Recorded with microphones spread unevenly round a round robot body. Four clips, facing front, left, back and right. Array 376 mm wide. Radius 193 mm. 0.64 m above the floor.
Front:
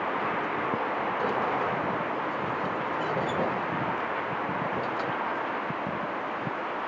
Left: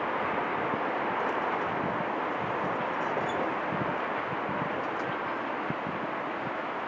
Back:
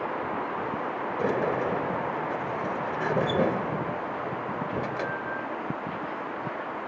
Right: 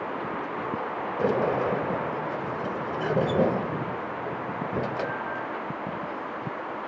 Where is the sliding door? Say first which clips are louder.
Right 5 dB, back 4 dB; 115° right.